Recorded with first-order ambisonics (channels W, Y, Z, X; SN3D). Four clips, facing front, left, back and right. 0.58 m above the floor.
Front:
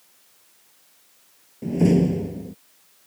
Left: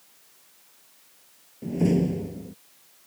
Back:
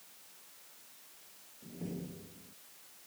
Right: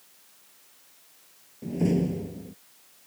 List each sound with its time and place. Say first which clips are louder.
1.6 s a door slam: left 2 dB, front 25 dB; 10° left